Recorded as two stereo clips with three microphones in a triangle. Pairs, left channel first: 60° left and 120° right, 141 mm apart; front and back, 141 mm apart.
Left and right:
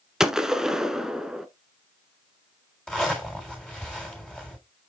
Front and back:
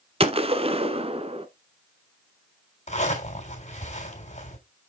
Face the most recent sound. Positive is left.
turn(degrees=-25)